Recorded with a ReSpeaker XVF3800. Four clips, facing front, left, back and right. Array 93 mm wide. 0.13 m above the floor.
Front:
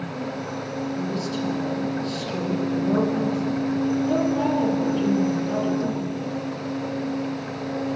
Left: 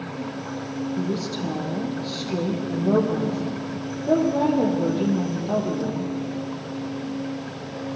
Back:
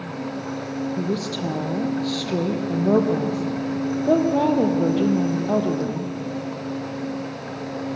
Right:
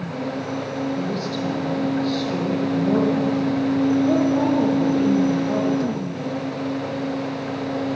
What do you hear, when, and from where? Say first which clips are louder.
1.0 s a woman speaking: right 2 dB, back 1 dB; 175° left, 4.5 m